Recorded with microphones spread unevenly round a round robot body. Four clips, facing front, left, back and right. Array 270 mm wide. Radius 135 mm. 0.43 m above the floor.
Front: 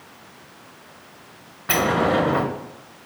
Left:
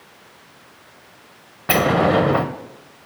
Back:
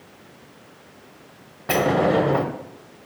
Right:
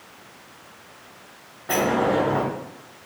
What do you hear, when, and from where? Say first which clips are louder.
1.7 s a sliding door: left 4 dB, back 1 dB; 90° left, 0.6 m